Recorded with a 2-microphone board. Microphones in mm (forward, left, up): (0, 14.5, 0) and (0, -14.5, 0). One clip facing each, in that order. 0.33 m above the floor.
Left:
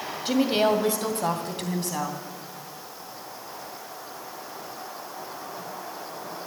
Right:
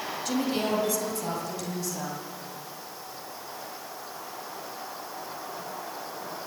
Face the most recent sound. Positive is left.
turn(degrees=65)  # may be behind; listen again after turning